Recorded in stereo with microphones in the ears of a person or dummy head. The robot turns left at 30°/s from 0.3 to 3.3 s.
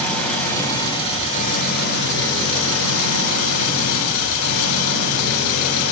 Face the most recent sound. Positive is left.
turn(degrees=85)